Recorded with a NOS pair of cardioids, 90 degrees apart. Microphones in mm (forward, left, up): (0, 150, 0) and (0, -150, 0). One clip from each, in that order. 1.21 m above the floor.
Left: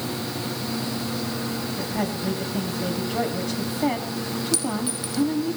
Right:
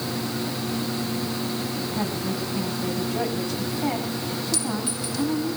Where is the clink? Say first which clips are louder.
Left 1 dB; 25° left, 5 m.